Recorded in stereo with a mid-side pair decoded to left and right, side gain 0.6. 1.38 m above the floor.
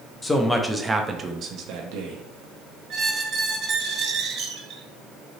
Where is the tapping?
I don't hear tapping.